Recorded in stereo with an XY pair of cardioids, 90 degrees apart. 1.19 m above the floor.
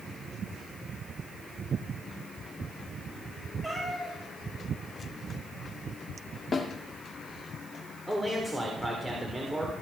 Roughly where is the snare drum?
Ahead left.